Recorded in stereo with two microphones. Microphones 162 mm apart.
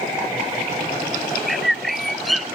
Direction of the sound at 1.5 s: Centre (ahead or behind).